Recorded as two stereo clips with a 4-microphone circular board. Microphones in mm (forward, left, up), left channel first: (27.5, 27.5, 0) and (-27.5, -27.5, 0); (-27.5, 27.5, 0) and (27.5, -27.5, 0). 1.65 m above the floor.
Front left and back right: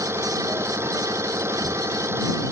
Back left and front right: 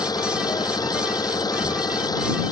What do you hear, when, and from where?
0.0 s an engine running: 170° left